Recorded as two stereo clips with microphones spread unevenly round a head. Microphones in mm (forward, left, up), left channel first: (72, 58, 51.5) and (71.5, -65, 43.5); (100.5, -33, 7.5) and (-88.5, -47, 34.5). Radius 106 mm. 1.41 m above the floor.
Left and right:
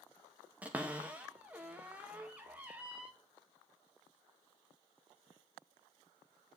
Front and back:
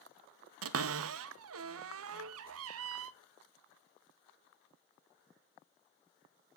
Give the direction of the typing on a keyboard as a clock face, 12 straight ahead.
I don't hear typing on a keyboard.